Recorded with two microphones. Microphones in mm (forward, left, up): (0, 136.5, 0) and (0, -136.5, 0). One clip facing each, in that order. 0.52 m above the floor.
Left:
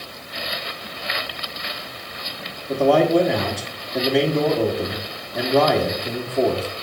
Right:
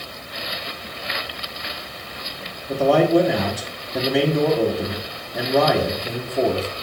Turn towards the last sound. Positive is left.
turn(degrees=0)  # may be behind; listen again after turning